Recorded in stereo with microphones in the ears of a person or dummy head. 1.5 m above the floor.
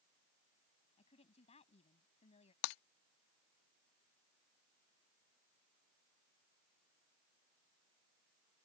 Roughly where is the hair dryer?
No hair dryer in this recording.